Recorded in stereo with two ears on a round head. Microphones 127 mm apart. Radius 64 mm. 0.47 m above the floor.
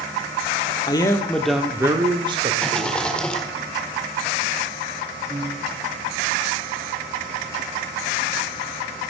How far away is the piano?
About 3.5 m.